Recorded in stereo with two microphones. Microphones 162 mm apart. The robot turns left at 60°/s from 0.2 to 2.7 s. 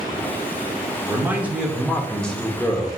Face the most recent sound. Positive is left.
turn(degrees=15)  # may be behind; listen again after turning